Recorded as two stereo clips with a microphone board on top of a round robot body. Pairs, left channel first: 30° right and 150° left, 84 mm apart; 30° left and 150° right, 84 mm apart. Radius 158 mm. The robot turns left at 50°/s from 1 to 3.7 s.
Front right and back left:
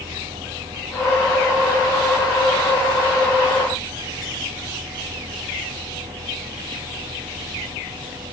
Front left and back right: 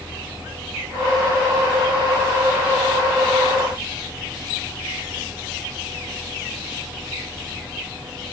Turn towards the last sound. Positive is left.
No sound to turn to.